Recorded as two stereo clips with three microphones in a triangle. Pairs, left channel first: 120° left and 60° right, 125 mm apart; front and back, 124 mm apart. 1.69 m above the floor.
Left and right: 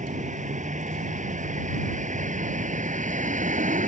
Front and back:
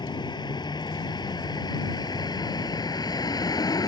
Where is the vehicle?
55° right; by 3.9 s 60° right.